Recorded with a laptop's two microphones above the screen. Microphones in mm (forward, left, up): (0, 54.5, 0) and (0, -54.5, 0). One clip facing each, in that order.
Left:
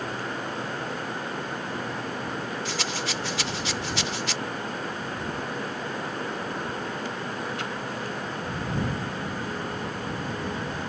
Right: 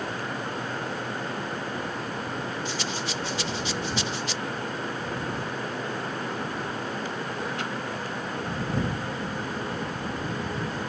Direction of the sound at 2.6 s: 80° left.